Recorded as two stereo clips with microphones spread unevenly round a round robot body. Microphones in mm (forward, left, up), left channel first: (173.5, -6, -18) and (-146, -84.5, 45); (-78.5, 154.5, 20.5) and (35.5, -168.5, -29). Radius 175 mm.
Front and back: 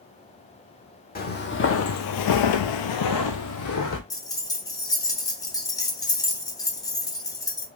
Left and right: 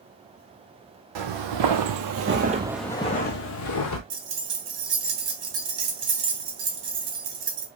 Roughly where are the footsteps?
Ahead right.